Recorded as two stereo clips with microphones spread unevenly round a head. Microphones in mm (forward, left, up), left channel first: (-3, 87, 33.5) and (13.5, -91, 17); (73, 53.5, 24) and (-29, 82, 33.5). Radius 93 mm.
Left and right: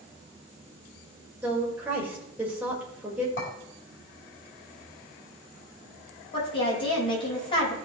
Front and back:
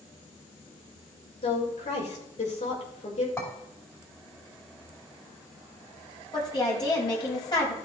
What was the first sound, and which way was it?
A woman speaking, 5° right.